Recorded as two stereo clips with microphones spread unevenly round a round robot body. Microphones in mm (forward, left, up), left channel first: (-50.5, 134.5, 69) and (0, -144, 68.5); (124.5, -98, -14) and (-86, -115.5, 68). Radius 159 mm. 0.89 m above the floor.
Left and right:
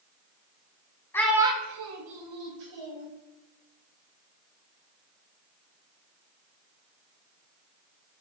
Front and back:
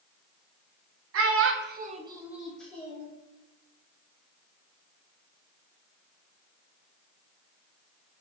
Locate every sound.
1.1 s a child speaking: straight behind, 0.7 m; by 3.1 s 75° right, 1.3 m